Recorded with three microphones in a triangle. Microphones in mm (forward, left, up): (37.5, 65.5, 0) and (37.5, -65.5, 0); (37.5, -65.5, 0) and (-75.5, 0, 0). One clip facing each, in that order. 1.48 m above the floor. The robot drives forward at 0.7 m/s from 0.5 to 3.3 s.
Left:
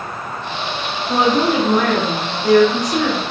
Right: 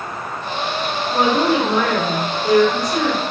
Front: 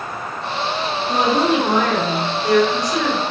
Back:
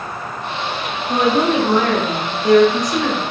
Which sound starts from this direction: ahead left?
A woman speaking, at 1.1 s.